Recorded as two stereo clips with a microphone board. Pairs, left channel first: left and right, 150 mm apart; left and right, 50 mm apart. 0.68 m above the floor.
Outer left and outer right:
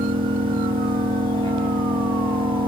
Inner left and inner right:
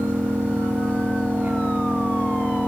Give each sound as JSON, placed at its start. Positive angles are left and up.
{"t": 0.0, "sound": "an engine running", "side_deg": -30, "distance_m": 6.5}